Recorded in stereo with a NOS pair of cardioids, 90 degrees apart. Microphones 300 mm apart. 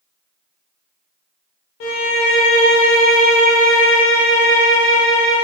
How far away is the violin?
About 0.8 m.